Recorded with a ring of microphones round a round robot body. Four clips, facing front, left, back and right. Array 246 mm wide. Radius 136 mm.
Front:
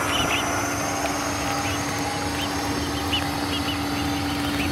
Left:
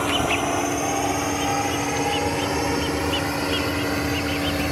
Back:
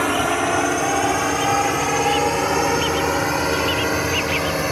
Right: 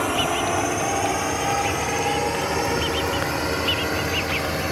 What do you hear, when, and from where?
0.0 s a drone: straight behind